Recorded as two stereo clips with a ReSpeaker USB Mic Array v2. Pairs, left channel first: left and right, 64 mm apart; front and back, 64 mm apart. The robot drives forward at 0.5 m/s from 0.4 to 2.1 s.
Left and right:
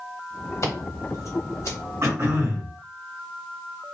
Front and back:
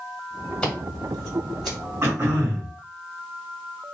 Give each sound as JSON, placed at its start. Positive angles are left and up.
{"t": 0.6, "sound": "scissors", "azimuth_deg": 70, "distance_m": 1.5}
{"t": 2.0, "sound": "throat clearing", "azimuth_deg": -130, "distance_m": 1.7}